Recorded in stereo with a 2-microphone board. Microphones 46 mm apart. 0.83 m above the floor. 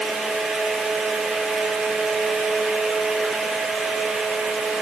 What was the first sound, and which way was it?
Only background noise.